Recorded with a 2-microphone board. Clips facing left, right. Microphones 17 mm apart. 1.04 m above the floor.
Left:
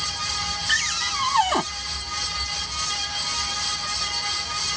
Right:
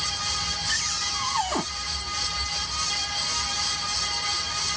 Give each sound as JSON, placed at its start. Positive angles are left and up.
{"t": 0.7, "sound": "a cupboard door", "side_deg": 30}